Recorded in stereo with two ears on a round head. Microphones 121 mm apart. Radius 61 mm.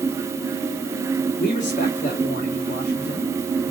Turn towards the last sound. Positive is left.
turn(degrees=60)  # may be behind; listen again after turning